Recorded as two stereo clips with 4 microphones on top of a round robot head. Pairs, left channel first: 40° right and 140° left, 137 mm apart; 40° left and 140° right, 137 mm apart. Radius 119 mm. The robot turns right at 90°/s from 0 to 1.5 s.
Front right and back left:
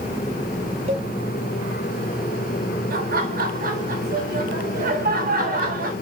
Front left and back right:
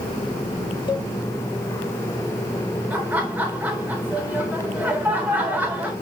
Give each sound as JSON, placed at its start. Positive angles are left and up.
{"t": 0.9, "sound": "a cowbell", "azimuth_deg": 95, "distance_m": 2.5}
{"t": 2.9, "sound": "laughter", "azimuth_deg": 145, "distance_m": 4.5}